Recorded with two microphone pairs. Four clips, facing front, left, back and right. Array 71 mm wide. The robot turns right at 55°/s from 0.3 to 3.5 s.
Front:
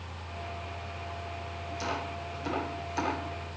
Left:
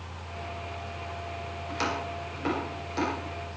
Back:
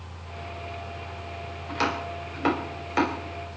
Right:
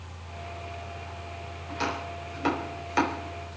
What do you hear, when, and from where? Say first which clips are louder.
1.7 s chopping: even, back 7 dB; 155° left, 5.5 m; by 3.6 s 105° right, 5.5 m